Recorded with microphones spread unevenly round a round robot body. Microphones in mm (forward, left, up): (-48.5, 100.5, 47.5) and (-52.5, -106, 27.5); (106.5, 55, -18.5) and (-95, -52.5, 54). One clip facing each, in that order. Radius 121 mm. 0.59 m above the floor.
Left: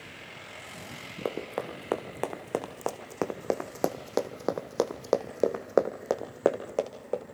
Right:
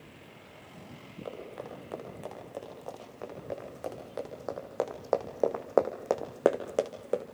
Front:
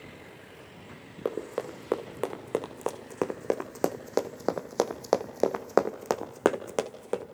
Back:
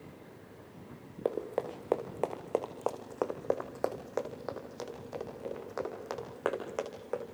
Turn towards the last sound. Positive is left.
turn(degrees=-15)